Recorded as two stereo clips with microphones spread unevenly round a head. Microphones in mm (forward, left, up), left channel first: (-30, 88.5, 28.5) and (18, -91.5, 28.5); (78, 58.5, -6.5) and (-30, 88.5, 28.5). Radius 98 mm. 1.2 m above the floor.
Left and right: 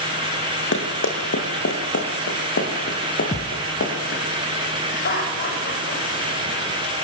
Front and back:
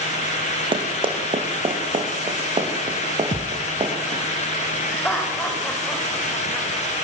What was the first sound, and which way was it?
Running footsteps, 130° left.